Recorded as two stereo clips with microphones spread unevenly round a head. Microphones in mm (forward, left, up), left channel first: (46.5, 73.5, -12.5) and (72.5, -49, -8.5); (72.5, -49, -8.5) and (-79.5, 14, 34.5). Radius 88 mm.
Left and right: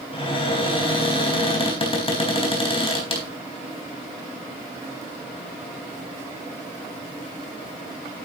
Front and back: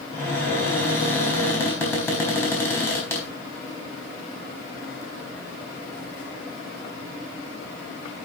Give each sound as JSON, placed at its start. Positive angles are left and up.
{"t": 0.1, "sound": "a cupboard door", "azimuth_deg": 60, "distance_m": 4.0}